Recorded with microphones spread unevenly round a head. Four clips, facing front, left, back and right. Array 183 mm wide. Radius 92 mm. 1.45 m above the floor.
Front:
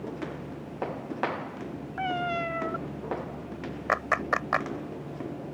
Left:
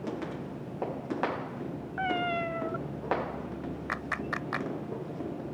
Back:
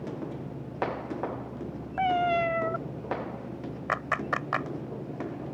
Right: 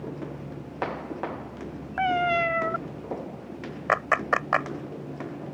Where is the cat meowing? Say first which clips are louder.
Right 7 dB, back 5 dB; 115° right.